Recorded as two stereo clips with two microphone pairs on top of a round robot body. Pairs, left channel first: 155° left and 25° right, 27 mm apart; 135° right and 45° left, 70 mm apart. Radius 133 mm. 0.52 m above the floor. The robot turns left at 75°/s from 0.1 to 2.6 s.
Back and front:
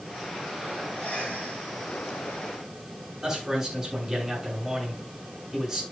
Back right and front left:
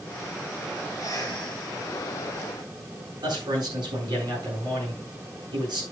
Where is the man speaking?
55° left, 8 m.